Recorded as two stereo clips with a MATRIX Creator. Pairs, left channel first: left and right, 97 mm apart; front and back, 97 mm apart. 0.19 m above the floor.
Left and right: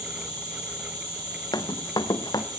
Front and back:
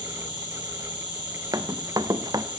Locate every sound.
0.0 s an insect: 40° right, 9.5 m
1.5 s running footsteps: 130° left, 1.2 m